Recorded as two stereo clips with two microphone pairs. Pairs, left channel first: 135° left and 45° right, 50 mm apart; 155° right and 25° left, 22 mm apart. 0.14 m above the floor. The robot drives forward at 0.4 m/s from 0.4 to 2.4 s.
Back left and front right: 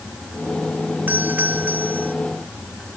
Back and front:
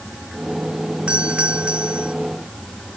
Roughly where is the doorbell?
Ahead.